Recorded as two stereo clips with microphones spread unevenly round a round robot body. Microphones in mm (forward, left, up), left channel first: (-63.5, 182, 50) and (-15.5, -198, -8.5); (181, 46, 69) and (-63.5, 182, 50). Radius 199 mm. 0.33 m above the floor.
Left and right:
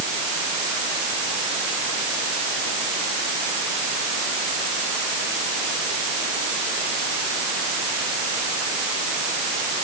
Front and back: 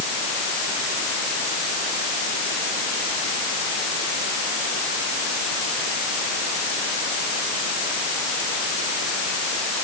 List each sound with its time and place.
Only background noise.